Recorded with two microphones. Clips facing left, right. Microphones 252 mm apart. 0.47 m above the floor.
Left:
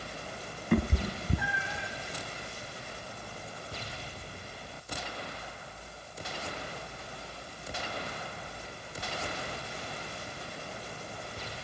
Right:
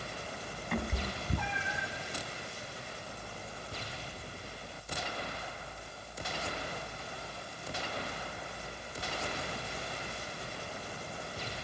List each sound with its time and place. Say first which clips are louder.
0.7 s a cat meowing: left 8 dB; 50° left (ahead or behind), 0.7 m; by 1.9 s 5° right (ahead or behind), 1.1 m